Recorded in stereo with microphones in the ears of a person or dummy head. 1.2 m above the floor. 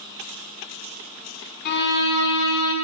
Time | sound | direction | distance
1.6 | a violin | 60° left (ahead or behind) | 1.9 m